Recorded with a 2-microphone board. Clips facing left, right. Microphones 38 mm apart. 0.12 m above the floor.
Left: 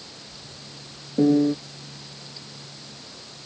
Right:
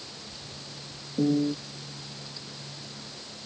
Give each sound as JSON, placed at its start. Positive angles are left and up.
{"t": 1.2, "sound": "a piano", "side_deg": 35}